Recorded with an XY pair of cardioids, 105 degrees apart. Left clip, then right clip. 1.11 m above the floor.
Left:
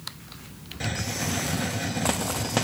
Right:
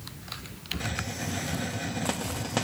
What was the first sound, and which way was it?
A hiss, 25° left.